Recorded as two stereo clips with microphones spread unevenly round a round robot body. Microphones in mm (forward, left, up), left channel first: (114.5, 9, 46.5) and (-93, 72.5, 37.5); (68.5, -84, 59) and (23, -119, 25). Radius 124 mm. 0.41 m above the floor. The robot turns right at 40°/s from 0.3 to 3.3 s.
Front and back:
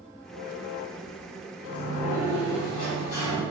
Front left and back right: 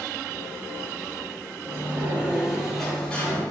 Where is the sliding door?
90° right, 1.4 m; by 3.4 s 25° right, 1.4 m.